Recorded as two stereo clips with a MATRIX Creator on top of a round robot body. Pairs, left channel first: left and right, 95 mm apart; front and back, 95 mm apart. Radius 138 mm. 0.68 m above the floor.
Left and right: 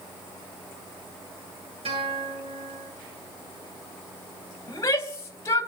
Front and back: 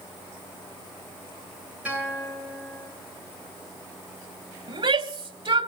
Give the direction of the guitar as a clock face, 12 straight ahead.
3 o'clock.